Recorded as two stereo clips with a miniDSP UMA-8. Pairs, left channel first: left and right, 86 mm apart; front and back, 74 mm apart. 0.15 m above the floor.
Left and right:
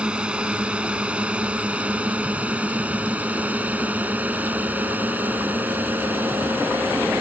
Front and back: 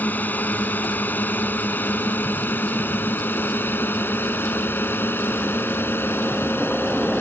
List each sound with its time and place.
0.0 s a drone: 25° right; by 7.2 s 35° right